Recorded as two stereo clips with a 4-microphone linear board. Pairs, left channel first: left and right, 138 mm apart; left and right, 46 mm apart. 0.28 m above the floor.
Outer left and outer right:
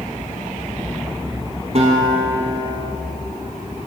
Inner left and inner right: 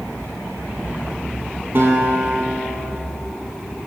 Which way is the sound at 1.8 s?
50° right (ahead or behind).